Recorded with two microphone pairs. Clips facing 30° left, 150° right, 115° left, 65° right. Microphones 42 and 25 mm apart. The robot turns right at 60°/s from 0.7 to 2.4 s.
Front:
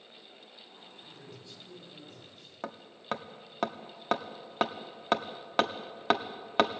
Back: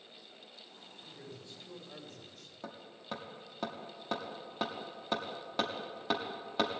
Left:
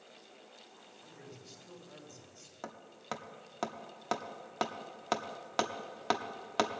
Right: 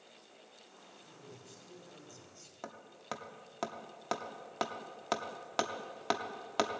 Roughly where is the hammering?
Ahead left.